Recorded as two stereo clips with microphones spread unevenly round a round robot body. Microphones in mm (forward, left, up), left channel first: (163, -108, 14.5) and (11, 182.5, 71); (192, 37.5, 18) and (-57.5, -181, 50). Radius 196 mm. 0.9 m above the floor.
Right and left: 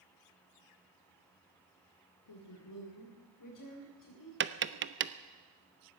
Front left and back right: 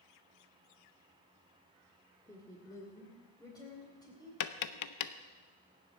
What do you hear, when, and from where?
2.3 s a woman speaking: 40° right, 2.5 m; by 4.3 s 35° right, 5 m
4.4 s tapping: 55° left, 0.7 m